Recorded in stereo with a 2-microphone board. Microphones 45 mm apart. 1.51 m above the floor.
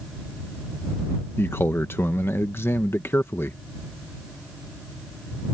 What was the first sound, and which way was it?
A man speaking, 70° left (ahead or behind).